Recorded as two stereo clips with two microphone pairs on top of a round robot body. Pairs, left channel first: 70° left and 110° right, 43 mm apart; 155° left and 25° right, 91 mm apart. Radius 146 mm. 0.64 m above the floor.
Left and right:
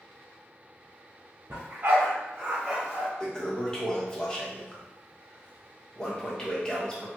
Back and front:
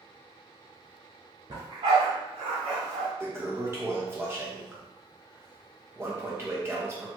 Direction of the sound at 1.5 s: 75° right.